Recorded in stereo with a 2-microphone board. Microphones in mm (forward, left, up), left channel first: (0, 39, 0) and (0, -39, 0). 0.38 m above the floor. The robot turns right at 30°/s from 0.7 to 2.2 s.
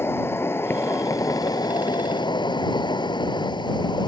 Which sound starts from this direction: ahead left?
An insect, at 0.0 s.